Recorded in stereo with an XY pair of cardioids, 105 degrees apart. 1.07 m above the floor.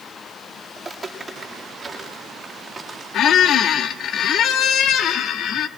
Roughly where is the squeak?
Left.